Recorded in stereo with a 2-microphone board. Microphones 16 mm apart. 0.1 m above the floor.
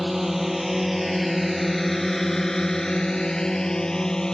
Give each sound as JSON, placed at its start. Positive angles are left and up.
{"t": 0.0, "sound": "a drone", "side_deg": -10}